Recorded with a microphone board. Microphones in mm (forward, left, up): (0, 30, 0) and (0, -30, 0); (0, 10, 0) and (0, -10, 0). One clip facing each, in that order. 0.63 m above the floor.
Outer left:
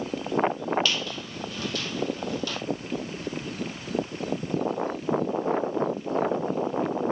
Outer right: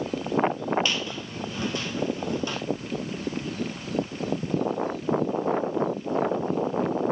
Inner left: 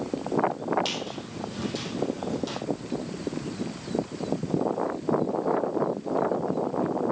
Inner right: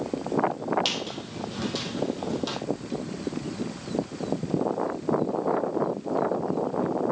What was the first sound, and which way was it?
A squeak, 25° right (ahead or behind).